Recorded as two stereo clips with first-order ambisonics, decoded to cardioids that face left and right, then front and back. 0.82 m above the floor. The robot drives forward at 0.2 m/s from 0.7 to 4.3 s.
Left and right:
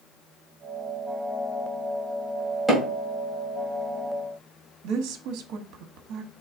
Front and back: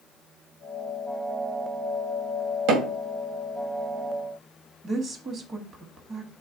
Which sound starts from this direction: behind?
Hammering, at 2.7 s.